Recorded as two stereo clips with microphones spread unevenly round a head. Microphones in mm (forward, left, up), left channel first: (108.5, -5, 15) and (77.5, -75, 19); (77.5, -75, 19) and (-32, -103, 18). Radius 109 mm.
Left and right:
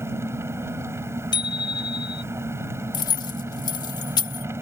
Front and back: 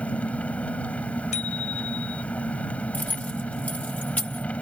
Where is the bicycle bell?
65° left.